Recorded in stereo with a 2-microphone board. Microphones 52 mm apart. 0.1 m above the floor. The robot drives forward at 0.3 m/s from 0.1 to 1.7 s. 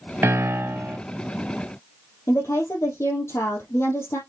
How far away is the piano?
About 0.7 m.